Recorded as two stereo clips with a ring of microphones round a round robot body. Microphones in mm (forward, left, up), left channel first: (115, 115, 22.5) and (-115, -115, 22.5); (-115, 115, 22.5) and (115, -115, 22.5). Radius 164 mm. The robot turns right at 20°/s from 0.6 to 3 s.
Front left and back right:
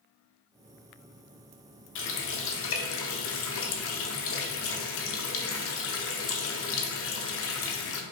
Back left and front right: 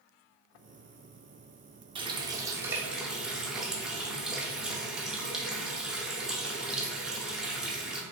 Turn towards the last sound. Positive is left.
turn(degrees=40)